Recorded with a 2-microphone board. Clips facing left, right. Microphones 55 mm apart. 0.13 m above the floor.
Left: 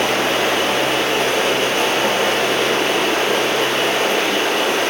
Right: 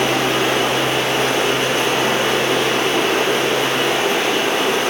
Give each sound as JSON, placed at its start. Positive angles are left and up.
{"t": 0.0, "sound": "running water", "side_deg": 45, "distance_m": 1.4}